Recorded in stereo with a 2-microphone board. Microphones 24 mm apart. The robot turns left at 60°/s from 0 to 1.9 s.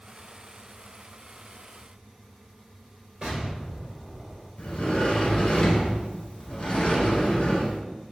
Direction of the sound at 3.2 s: 40° right (ahead or behind).